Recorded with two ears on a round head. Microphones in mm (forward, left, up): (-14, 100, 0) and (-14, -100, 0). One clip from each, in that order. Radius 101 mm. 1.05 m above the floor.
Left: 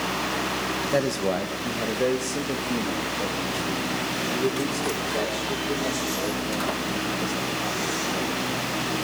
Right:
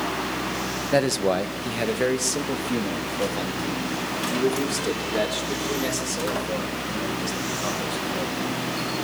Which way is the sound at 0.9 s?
20° right (ahead or behind).